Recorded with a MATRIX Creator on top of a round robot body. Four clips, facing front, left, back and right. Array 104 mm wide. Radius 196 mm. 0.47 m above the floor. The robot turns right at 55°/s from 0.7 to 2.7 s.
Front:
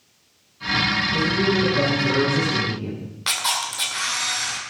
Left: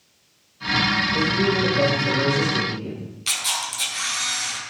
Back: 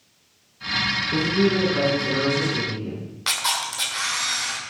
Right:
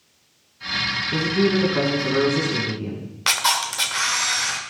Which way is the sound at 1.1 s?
135° right.